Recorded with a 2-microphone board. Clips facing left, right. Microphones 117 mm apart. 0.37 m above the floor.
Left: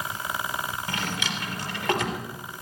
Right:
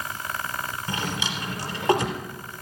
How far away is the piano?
I don't hear a piano.